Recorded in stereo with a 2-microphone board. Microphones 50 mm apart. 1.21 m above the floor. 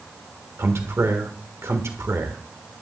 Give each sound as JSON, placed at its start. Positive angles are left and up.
{"t": 0.6, "sound": "a man speaking", "side_deg": -70, "distance_m": 1.5}